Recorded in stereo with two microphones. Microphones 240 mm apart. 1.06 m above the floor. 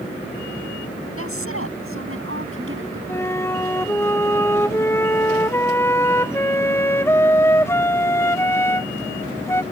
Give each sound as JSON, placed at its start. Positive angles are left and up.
{"t": 1.2, "sound": "a woman speaking", "side_deg": -70}
{"t": 3.1, "sound": "a flute", "side_deg": 10}